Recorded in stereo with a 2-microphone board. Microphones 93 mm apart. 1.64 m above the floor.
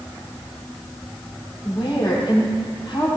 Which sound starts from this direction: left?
A woman speaking, at 1.6 s.